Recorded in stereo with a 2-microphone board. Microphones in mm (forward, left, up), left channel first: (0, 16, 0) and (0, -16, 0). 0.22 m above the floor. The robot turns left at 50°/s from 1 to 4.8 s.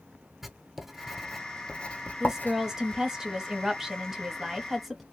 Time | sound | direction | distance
0.4 | writing | 10° right (ahead or behind) | 0.6 m
2.2 | a woman speaking | 15° right (ahead or behind) | 0.9 m